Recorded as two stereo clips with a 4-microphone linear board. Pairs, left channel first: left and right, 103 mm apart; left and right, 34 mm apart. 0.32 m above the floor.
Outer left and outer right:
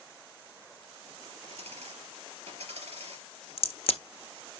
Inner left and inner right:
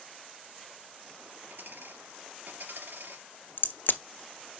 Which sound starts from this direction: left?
A crack, at 3.6 s.